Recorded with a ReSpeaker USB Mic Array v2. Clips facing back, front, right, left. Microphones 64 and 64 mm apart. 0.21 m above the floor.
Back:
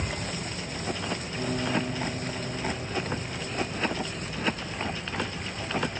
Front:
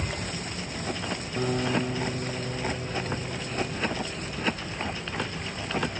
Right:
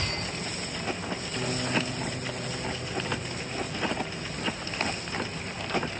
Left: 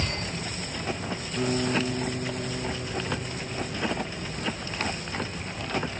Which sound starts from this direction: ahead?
A guitar, at 1.4 s.